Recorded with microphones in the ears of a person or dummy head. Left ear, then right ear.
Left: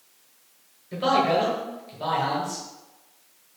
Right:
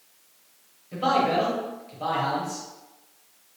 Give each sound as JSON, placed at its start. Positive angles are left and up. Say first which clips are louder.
{"t": 0.9, "sound": "a man speaking", "louder": "left 1 dB", "side_deg": 10, "distance_m": 1.1}